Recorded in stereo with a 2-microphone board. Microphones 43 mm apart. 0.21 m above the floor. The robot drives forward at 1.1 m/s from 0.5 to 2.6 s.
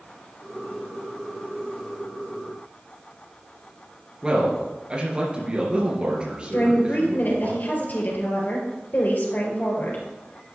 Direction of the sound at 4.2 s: 25° right (ahead or behind).